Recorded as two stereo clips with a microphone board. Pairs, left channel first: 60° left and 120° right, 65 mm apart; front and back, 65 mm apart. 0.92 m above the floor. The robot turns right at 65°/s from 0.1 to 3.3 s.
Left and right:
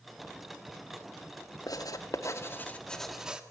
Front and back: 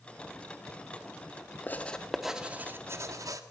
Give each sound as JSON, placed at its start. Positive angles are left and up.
{"t": 1.7, "sound": "writing", "azimuth_deg": 55, "distance_m": 1.6}